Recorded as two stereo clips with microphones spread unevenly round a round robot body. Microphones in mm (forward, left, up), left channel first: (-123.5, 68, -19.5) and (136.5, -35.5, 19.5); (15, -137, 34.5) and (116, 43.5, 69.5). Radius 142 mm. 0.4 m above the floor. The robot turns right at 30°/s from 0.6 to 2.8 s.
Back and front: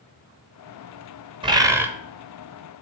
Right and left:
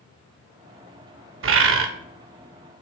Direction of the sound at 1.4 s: 55° left.